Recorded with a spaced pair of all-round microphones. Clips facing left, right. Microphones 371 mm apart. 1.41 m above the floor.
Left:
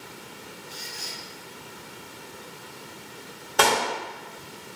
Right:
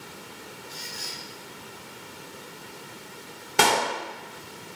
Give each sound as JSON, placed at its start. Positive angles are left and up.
{"t": 0.7, "sound": "a squeak", "side_deg": -30, "distance_m": 1.4}
{"t": 3.6, "sound": "a clap", "side_deg": -35, "distance_m": 0.6}